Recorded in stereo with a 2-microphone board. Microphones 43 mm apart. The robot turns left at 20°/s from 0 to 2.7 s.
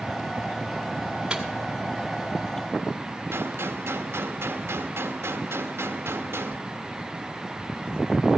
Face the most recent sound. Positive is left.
turn(degrees=-80)